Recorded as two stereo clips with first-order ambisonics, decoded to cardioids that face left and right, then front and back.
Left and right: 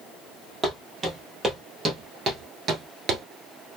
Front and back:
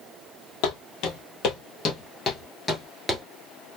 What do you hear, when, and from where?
0.6 s footsteps: 10° right, 1.4 m; by 3.2 s 105° right, 0.9 m